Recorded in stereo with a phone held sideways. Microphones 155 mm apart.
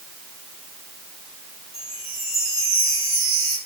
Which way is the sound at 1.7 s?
40° left (ahead or behind).